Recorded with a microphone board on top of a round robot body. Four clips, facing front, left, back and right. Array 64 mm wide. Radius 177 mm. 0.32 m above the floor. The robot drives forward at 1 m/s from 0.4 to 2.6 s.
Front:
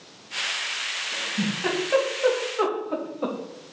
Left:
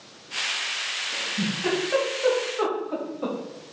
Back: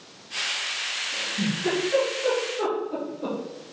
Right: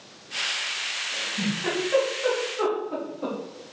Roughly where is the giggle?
Ahead.